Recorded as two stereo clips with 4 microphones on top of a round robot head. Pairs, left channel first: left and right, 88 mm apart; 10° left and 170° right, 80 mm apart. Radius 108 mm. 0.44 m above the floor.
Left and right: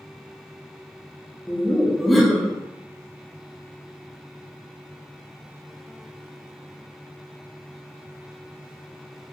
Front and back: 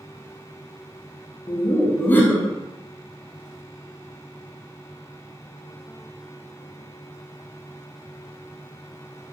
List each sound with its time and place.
1.5 s laughter: 5° left, 0.7 m